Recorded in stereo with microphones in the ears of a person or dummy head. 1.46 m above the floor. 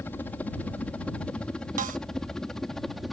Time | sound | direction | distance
0.0 | a helicopter | 15° left (ahead or behind) | ?
1.8 | a snare drum | 45° right (ahead or behind) | ?